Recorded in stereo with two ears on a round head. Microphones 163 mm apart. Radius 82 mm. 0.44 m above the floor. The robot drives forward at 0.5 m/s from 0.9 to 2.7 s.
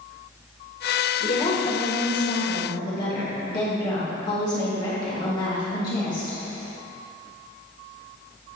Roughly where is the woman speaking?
Left.